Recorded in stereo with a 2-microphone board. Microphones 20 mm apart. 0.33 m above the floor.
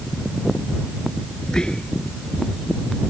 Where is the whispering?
45° left (ahead or behind).